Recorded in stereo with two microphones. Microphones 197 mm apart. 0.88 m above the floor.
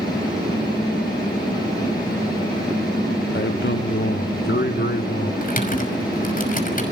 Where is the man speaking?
65° left (ahead or behind), 1.0 m; by 5.3 s 55° left (ahead or behind), 2.5 m.